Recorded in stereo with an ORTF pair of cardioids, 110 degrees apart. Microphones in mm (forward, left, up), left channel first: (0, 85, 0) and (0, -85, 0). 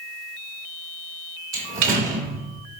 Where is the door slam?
60° right, 2.5 m.